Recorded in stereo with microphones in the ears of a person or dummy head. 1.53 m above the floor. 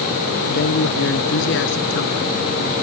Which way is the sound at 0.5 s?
65° left (ahead or behind).